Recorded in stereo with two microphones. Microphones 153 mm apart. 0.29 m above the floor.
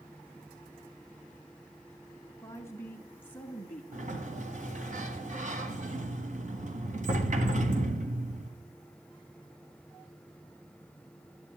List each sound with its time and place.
2.4 s a woman speaking: 20° left (ahead or behind), 2.5 m; by 3.8 s 5° left (ahead or behind), 3 m
3.9 s a sliding door: 55° right (ahead or behind), 1.8 m